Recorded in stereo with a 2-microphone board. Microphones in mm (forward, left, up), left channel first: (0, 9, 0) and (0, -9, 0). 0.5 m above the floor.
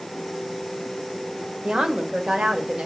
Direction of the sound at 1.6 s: 55° right (ahead or behind).